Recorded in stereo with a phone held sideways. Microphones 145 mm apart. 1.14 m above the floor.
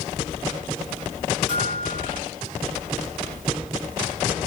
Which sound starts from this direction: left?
A bell, at 1.5 s.